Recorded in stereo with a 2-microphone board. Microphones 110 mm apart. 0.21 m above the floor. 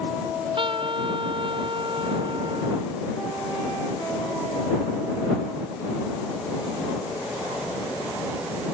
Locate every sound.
0.2 s a trumpet: 50° right (ahead or behind)